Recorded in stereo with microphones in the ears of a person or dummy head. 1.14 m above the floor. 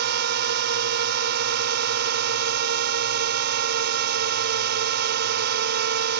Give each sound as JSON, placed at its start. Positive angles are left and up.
{"t": 0.0, "sound": "a drone", "side_deg": -55}